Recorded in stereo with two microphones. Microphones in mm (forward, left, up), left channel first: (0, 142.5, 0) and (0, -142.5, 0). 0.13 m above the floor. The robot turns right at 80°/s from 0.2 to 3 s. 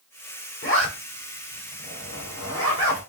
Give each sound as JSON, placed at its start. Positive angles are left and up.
{"t": 0.6, "sound": "a zipper", "side_deg": 50, "distance_m": 2.5}